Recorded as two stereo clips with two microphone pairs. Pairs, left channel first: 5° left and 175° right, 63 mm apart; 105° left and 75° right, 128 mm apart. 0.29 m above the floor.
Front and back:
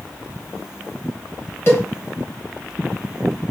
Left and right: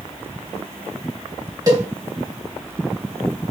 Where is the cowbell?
25° right, 1.2 m.